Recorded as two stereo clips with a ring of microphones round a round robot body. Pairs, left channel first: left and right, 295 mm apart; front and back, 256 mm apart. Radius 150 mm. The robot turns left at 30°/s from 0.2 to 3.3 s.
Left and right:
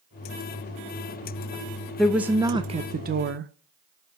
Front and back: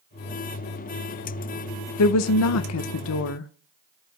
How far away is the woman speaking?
About 0.6 m.